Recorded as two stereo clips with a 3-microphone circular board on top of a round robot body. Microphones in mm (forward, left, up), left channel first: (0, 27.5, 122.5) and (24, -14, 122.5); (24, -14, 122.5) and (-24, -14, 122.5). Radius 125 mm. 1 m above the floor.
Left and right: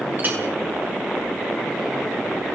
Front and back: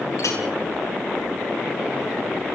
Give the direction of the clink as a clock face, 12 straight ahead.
12 o'clock.